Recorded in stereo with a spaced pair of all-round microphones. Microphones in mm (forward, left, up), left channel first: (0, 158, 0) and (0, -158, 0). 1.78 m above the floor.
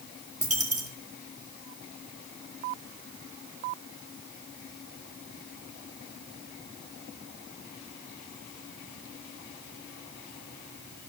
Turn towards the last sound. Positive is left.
turn(degrees=-45)  # may be behind; listen again after turning